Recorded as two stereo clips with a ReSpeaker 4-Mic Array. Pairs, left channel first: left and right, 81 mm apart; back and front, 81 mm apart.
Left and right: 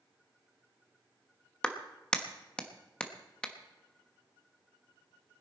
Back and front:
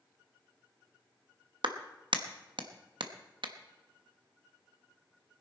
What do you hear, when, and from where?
1.6 s a clap: 10° left, 1.0 m